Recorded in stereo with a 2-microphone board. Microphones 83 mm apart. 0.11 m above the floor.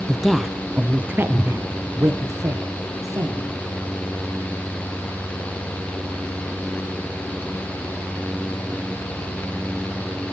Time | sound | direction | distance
0.1 | a woman speaking | 5° left (ahead or behind) | 1.8 m